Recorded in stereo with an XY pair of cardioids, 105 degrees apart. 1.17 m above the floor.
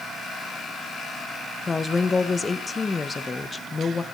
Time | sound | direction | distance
1.7 | a woman speaking | 25° left | 0.9 m